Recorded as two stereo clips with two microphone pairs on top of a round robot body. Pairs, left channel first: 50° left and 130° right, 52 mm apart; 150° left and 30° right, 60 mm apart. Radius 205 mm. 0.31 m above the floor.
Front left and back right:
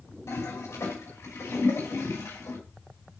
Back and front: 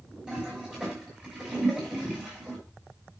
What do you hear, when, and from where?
0.3 s a toilet flushing: 45° left, 6 m